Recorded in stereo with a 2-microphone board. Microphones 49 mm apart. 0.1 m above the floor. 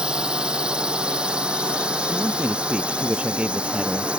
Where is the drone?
20° right (ahead or behind).